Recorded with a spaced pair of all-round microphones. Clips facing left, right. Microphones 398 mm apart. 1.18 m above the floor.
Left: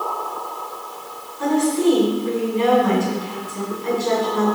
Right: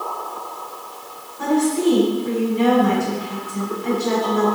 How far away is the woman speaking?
About 4.5 m.